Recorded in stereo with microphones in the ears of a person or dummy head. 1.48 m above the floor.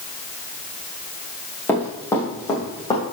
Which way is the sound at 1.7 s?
10° left (ahead or behind).